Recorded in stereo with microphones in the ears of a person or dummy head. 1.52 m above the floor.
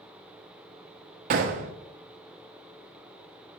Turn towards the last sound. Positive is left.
turn(degrees=-45)  # may be behind; listen again after turning